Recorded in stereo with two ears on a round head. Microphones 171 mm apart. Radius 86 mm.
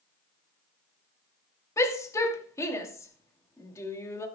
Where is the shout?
15° left (ahead or behind), 2.5 m.